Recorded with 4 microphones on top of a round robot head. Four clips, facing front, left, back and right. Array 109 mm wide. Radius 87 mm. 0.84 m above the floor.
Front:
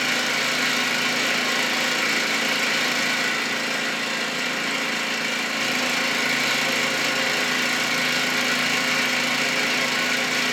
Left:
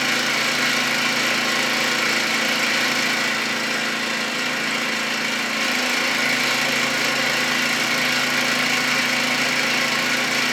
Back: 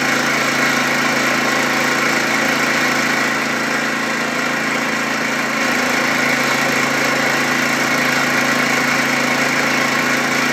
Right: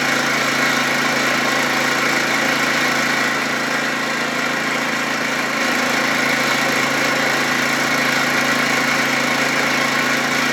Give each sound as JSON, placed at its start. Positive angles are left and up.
{"t": 0.0, "sound": "an engine running", "azimuth_deg": -145, "distance_m": 0.8}